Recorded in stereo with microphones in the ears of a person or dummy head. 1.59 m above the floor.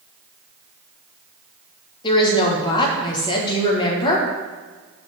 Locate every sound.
2.0 s a woman speaking: 25° left (ahead or behind), 1.4 m